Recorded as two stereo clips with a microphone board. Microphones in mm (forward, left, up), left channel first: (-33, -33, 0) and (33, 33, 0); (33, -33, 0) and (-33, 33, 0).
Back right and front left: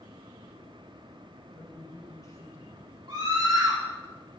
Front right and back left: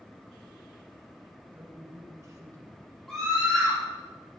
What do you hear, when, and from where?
1.5 s a man speaking: 160° right, 1.4 m; by 2.8 s 175° left, 1.9 m
3.1 s a scream: 40° left, 1.9 m